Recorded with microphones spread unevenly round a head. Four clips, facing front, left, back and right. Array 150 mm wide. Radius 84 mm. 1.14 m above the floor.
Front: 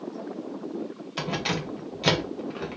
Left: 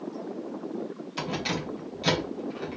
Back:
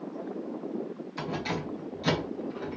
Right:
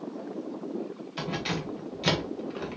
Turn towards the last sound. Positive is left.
turn(degrees=-20)